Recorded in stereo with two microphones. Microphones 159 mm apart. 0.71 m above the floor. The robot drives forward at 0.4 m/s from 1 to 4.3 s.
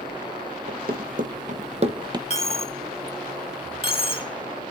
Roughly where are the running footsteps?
Right.